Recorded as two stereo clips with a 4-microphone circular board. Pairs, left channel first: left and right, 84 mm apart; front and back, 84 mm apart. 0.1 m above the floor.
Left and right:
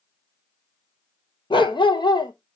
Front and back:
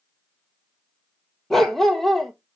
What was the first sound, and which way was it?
A dog barking, 85° left.